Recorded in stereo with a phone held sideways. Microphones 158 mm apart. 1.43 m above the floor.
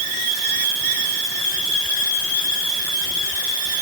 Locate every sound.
Only background noise.